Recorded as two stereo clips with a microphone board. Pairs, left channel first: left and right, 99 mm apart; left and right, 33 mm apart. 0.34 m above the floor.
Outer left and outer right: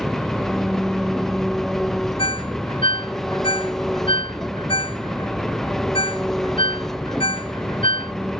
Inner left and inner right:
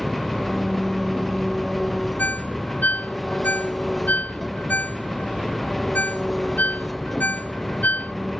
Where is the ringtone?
65° left (ahead or behind).